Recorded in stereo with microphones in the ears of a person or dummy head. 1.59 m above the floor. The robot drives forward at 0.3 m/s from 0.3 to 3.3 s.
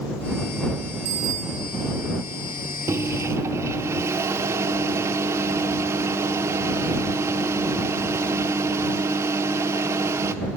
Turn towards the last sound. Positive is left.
turn(degrees=-15)  # may be behind; listen again after turning